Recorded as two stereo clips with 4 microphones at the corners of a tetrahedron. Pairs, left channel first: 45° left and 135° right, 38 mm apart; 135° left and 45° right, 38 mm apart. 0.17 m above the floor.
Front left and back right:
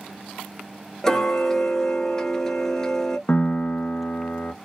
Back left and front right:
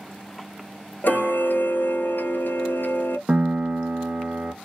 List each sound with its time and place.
1.0 s ticking: 120° left, 0.7 m
3.3 s a piano: 10° left, 0.5 m